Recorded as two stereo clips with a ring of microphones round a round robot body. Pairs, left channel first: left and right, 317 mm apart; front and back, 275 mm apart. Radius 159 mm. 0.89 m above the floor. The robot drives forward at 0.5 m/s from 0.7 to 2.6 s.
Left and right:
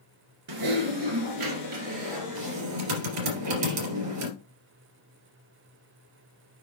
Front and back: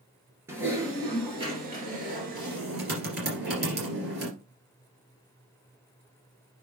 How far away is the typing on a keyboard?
About 2 m.